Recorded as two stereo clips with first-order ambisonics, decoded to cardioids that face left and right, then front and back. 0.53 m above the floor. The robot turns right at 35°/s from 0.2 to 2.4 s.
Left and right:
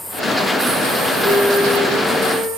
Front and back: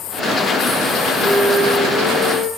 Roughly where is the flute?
Right.